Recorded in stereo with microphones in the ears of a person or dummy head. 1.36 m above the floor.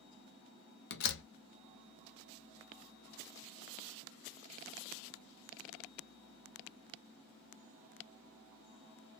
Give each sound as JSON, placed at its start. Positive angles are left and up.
{"t": 0.9, "sound": "a door slam", "side_deg": 60, "distance_m": 1.0}